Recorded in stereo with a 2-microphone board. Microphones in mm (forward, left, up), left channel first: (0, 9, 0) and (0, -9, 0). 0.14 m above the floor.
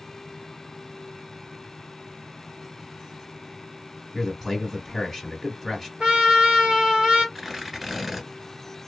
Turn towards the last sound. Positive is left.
turn(degrees=-20)  # may be behind; listen again after turning